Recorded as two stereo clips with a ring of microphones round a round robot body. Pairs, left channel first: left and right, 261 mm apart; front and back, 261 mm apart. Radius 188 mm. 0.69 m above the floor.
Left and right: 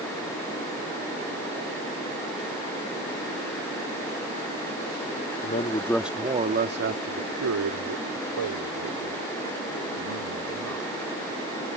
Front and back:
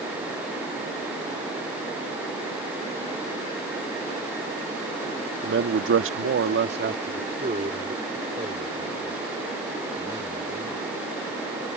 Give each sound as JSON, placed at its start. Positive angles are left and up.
{"t": 5.4, "sound": "a man speaking", "azimuth_deg": 145}